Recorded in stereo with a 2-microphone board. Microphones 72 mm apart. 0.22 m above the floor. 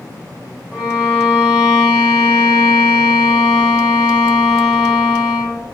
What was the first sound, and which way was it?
A violin, 25° right (ahead or behind).